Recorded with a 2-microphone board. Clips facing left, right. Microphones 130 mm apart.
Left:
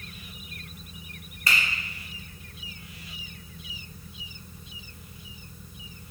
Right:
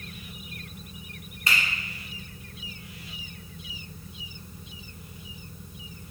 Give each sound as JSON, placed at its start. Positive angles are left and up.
{"t": 1.5, "sound": "a finger snap", "side_deg": -25, "distance_m": 1.6}